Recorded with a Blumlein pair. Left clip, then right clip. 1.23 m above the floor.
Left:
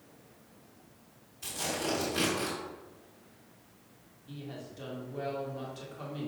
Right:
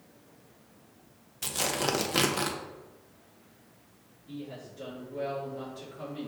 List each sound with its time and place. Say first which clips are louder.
1.4 s tearing paper: right 4 dB; 35° right, 0.6 m
4.3 s a woman speaking: right 2 dB; 20° left, 1.8 m